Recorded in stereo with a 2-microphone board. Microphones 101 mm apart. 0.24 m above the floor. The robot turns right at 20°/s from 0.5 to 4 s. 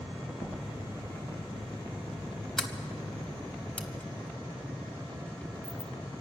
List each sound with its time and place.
0.4 s knocking: 60° right (ahead or behind), 2.5 m; by 0.6 s 65° right (ahead or behind), 2.5 m
2.6 s a sliding door: centre (ahead or behind), 1.1 m; by 5.9 s 15° left (ahead or behind), 1.1 m